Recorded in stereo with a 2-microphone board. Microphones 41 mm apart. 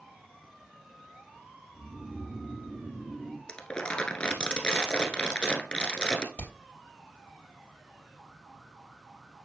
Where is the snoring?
45° right (ahead or behind), 5 m.